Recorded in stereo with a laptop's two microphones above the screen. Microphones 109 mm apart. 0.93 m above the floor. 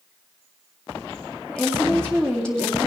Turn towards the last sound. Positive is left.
turn(degrees=5)  # may be behind; listen again after turning